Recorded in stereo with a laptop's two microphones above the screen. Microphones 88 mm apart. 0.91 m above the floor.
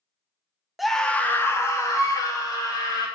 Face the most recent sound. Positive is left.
turn(degrees=45)  # may be behind; listen again after turning